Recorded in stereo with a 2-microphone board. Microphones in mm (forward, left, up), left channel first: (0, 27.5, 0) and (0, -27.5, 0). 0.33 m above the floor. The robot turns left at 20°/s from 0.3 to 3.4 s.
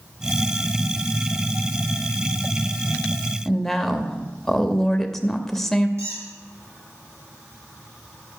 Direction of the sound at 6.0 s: 55° right (ahead or behind).